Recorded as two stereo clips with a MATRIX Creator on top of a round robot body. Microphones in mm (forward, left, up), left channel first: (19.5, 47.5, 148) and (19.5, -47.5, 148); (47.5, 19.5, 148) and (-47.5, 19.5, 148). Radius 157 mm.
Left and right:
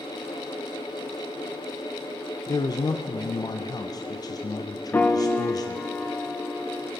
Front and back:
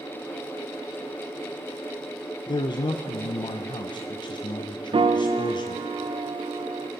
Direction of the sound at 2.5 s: 40° left.